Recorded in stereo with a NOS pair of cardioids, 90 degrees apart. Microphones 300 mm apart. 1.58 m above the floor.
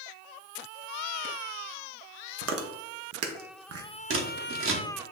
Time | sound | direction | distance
2.4 | chewing | 55° right | 0.8 m
4.1 | scissors | 45° right | 1.1 m